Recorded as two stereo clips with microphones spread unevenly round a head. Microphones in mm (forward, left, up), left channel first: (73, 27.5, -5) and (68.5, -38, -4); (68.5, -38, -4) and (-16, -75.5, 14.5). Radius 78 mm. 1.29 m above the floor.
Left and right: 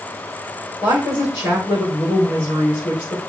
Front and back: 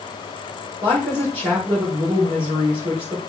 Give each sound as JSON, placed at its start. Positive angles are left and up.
{"t": 0.8, "sound": "a woman speaking", "azimuth_deg": 135, "distance_m": 5.0}